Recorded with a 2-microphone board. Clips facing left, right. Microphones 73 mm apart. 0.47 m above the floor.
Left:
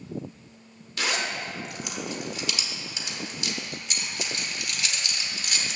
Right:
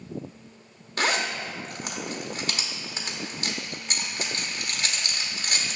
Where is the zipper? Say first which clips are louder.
Right 3 dB; 45° right (ahead or behind), 1.1 m.